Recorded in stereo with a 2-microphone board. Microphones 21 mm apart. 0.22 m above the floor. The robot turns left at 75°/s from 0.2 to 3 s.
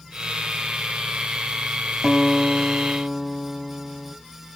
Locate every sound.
2.0 s a guitar: 130° right, 1.3 m; by 4.1 s 160° left, 1.3 m